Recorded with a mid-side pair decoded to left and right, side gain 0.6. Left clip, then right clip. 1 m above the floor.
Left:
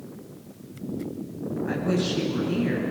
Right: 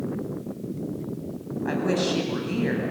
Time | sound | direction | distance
1.6 | a woman speaking | 40° right | 8.5 m